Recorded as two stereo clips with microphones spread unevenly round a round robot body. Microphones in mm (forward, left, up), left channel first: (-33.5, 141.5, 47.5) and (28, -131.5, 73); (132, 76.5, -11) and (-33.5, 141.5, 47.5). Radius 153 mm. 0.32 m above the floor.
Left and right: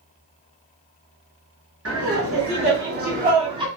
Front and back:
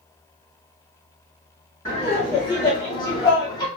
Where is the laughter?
70° right, 1.4 m; by 3.7 s 5° right, 1.1 m.